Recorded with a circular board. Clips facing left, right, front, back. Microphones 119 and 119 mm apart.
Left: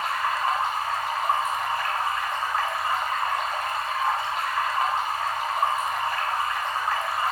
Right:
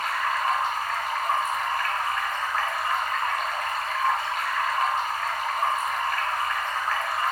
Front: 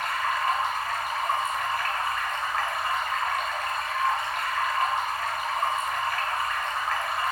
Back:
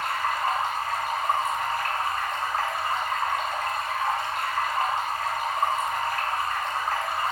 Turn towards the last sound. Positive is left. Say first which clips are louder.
# left 1 dB, even
turn(degrees=140)